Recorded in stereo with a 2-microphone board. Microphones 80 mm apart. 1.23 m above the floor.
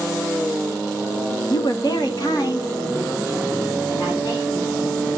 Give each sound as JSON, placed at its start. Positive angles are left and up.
{"t": 1.5, "sound": "a woman speaking", "side_deg": 65, "distance_m": 1.0}